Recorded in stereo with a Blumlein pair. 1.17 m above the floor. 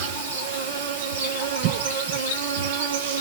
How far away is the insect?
About 3 m.